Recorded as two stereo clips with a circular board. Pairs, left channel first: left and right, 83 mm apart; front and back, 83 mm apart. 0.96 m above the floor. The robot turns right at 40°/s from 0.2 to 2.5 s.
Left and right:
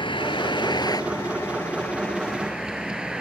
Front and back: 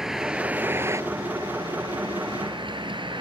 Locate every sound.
0.0 s a vehicle: 95° left; by 3.2 s 170° right